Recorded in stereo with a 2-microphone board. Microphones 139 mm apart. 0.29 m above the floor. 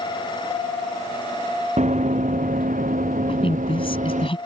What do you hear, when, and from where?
1.8 s running footsteps: 60° right (ahead or behind); by 4.3 s 65° right (ahead or behind)
3.3 s a woman speaking: 40° left (ahead or behind)